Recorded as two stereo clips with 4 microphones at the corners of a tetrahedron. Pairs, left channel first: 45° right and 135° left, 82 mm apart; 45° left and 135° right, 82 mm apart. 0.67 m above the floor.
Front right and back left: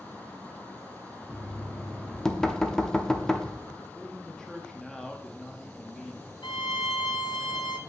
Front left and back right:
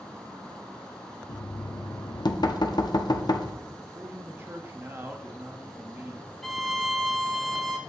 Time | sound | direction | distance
1.3 | knocking | 35° left | 0.6 m
3.8 | a man speaking | 120° right | 0.8 m
6.4 | a violin | 40° right | 0.6 m